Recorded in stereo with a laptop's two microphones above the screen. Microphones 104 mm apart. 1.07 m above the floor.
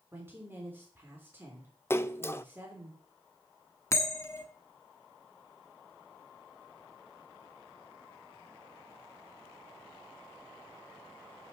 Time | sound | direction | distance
0.1 | a woman speaking | 20° right (ahead or behind) | 3.5 m
1.9 | a splash | 25° left (ahead or behind) | 0.6 m
3.9 | a bell | 30° left (ahead or behind) | 1.0 m